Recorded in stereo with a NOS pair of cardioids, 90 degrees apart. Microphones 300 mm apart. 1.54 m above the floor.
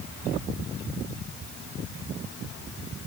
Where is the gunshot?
I don't hear a gunshot.